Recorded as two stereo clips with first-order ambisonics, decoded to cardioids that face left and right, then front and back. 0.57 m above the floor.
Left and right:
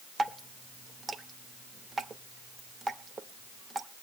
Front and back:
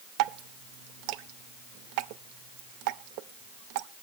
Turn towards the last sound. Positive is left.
turn(degrees=-170)